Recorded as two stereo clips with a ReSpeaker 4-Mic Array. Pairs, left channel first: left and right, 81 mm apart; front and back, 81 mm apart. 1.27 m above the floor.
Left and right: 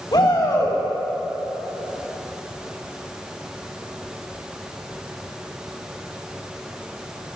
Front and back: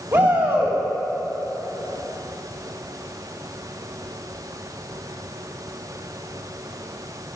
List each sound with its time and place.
0.1 s a shout: 115° left, 4 m